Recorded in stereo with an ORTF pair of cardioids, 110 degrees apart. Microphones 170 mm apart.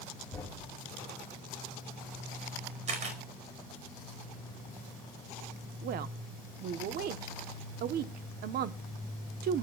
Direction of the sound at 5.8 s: 65° right.